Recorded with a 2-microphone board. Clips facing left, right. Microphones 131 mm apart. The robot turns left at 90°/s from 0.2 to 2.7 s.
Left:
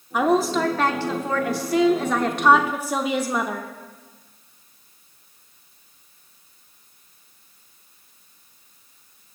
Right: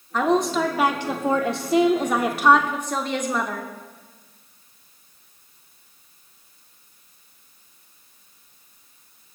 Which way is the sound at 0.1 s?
10° left (ahead or behind).